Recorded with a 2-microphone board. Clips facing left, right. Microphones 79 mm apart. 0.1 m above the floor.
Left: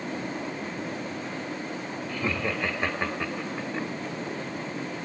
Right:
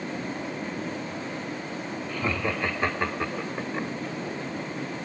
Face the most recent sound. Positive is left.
turn(degrees=-10)  # may be behind; listen again after turning